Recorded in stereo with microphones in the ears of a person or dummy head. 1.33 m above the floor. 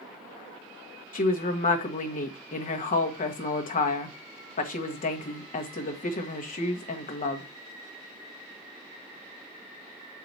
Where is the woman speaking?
35° left (ahead or behind), 1.2 m.